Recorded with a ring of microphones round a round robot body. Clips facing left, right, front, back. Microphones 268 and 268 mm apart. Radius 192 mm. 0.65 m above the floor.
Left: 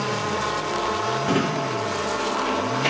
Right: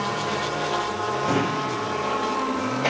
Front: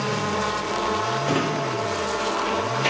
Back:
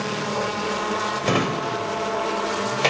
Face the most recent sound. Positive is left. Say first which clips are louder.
# left 2 dB, back 2 dB
turn(degrees=170)